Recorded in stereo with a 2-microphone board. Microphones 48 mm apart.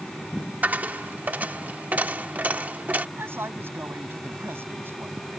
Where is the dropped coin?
35° right (ahead or behind).